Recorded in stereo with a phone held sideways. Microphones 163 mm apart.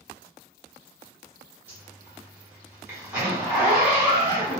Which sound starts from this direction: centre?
A zipper, at 1.7 s.